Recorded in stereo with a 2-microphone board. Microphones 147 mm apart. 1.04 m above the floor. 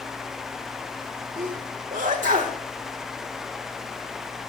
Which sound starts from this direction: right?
A sneeze, at 1.4 s.